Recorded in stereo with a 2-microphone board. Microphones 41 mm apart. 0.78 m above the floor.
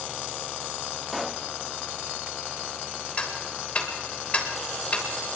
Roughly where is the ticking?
Left.